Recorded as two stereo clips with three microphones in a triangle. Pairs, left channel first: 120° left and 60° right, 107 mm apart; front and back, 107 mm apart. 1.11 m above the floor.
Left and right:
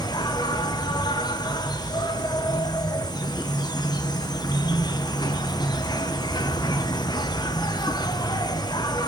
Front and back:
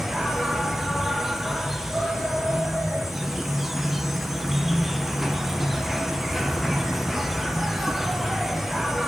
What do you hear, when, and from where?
0.0 s an insect: 95° left, 0.7 m